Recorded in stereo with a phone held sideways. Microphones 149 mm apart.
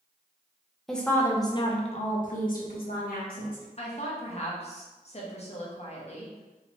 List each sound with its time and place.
0.9 s a woman speaking: centre (ahead or behind), 0.7 m; by 3.6 s 75° left (ahead or behind), 1.3 m
3.8 s a woman speaking: 45° left (ahead or behind), 0.9 m